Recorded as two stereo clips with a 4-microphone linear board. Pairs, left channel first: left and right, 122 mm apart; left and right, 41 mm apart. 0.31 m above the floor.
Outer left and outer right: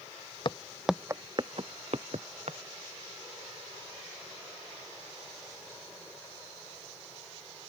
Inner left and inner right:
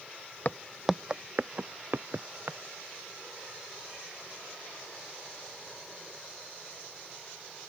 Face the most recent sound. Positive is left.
turn(degrees=-65)  # may be behind; listen again after turning